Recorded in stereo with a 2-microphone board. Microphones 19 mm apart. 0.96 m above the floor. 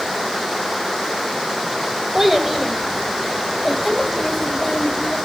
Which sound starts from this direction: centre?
A child speaking, at 2.1 s.